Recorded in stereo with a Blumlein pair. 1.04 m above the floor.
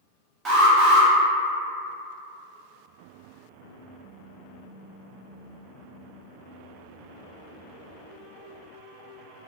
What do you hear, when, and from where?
0.5 s an alarm: 20° right, 1.2 m